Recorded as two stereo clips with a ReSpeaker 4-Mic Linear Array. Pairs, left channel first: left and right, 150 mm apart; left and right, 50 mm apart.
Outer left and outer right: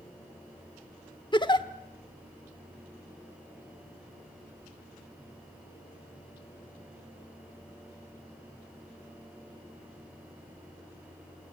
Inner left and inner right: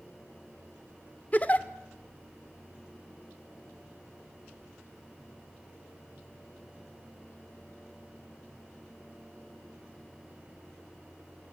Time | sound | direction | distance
1.3 | a giggle | 30° left (ahead or behind) | 1.1 m